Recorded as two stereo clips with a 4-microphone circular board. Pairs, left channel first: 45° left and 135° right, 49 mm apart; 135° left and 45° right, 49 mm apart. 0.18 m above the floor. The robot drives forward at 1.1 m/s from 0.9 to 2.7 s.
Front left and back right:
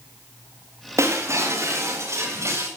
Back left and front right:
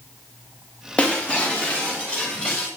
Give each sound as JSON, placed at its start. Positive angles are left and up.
{"t": 1.0, "sound": "breaking glass", "azimuth_deg": -155, "distance_m": 4.5}